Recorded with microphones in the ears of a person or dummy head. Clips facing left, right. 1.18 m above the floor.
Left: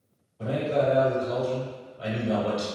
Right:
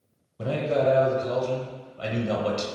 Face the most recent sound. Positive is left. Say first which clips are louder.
# right 1 dB
turn(degrees=-65)  # may be behind; listen again after turning